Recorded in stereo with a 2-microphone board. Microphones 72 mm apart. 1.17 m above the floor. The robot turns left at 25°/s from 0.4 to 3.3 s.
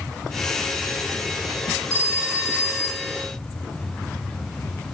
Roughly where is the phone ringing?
Ahead right.